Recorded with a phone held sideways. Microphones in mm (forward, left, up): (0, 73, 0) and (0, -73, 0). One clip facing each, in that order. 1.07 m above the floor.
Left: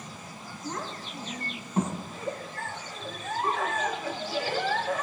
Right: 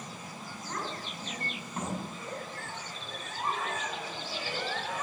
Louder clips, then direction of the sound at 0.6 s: Left 2 dB; 25° left (ahead or behind).